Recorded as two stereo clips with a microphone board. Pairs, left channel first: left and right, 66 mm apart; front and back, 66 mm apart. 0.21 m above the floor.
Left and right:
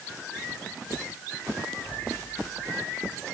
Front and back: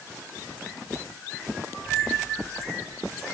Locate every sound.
Only background noise.